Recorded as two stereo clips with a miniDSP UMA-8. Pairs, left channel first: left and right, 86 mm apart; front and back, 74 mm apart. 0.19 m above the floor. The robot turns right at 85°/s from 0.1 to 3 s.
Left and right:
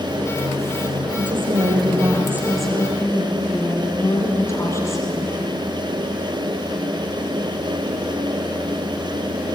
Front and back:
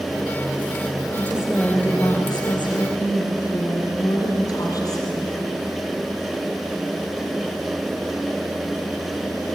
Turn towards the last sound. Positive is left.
turn(degrees=35)